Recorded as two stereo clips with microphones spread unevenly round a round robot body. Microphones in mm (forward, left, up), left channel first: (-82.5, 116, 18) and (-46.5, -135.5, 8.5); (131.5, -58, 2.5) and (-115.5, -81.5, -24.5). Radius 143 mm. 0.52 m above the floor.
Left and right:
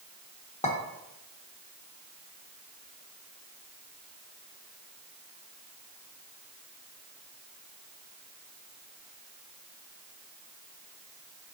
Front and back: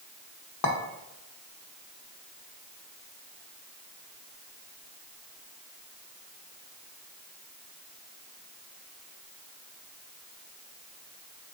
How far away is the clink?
About 1.0 m.